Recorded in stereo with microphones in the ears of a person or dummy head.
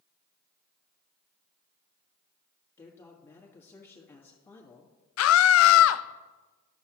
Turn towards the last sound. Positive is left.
turn(degrees=65)  # may be behind; listen again after turning